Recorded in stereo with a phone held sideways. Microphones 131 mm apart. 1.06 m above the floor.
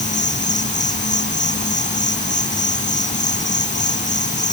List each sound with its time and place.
0.0 s an insect: 70° left (ahead or behind)